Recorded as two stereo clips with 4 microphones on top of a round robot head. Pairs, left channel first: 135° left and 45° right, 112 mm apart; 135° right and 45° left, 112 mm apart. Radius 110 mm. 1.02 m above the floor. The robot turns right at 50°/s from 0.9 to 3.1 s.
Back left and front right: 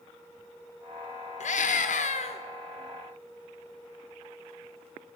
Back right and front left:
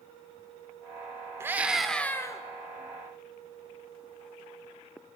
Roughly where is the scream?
Behind left.